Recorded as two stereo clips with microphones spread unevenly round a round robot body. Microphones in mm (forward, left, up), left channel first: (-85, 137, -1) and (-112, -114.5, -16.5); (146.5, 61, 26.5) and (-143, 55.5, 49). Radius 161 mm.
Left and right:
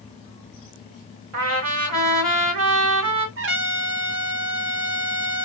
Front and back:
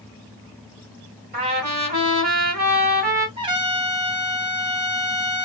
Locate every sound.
1.3 s a trumpet: 115° right, 1.6 m
3.4 s a trumpet: 105° right, 0.7 m